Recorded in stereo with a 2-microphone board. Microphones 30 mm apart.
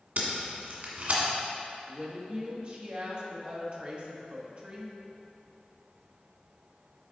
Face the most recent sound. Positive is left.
turn(degrees=-35)  # may be behind; listen again after turning